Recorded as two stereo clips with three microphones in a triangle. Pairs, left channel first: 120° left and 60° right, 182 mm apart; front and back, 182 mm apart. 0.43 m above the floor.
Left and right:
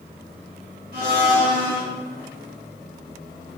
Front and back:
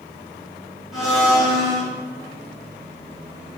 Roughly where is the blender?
Right.